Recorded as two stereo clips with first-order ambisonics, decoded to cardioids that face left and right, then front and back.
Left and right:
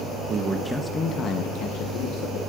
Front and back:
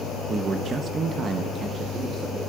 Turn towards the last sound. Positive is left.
turn(degrees=105)